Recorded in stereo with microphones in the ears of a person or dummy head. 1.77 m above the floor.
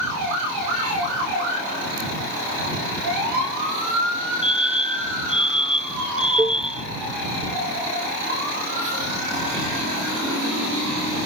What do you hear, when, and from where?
4.4 s a fire alarm: 30° left (ahead or behind)
6.4 s a cowbell: 10° right (ahead or behind)